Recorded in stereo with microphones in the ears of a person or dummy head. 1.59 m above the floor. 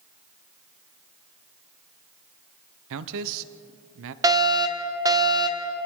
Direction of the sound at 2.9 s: 70° right (ahead or behind).